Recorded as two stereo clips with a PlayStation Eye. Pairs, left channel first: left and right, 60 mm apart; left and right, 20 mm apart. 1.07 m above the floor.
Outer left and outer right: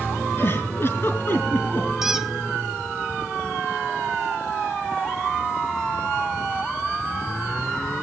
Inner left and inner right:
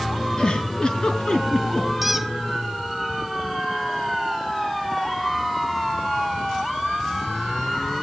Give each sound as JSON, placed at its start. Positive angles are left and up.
{"t": 0.4, "sound": "a giggle", "side_deg": 40, "distance_m": 4.5}
{"t": 2.0, "sound": "a squeak", "side_deg": -5, "distance_m": 1.1}